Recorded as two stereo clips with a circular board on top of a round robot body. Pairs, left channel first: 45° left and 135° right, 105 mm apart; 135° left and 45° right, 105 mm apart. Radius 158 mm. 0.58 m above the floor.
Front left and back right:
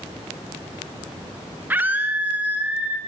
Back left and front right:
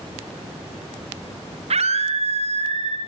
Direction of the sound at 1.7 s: 60° right.